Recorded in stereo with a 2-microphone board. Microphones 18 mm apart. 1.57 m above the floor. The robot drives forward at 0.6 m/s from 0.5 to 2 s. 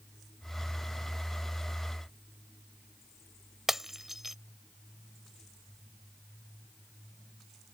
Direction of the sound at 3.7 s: 20° right (ahead or behind).